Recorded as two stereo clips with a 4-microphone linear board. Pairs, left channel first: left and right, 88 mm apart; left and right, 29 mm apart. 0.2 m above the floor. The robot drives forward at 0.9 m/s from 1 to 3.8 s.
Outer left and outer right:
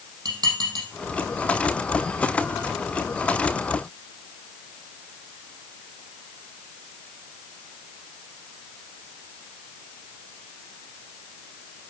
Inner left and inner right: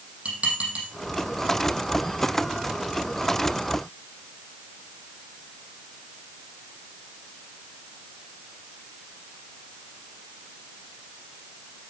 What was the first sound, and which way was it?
Dishes clattering, 50° right (ahead or behind).